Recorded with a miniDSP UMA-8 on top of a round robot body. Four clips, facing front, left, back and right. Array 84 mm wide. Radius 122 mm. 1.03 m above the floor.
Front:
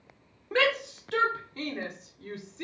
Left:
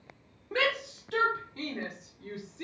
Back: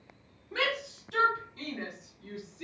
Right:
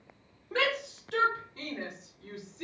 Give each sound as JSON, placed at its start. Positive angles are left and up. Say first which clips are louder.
{"t": 0.5, "sound": "a shout", "louder": "even, front 6 dB", "azimuth_deg": 10, "distance_m": 0.9}